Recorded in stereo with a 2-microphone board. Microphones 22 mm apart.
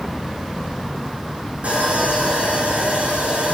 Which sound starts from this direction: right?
Sawing, at 1.6 s.